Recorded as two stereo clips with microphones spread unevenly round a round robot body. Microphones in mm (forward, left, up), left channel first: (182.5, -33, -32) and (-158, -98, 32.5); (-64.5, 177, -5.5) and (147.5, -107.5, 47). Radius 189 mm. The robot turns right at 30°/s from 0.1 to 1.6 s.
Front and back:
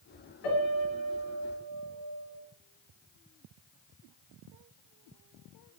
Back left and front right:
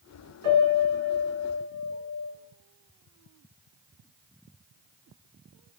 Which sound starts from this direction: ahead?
A piano, at 0.4 s.